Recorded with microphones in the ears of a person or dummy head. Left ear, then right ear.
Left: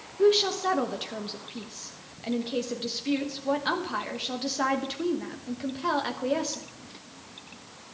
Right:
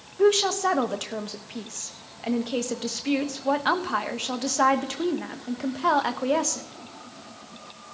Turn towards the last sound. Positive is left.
turn(degrees=-30)  # may be behind; listen again after turning